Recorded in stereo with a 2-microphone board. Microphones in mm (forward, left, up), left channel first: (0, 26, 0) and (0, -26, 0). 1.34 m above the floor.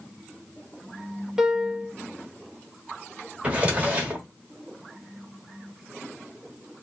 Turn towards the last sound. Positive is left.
turn(degrees=-20)  # may be behind; listen again after turning